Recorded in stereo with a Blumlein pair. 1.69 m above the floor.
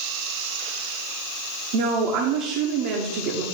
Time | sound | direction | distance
1.7 | a woman speaking | 45° right | 1.0 m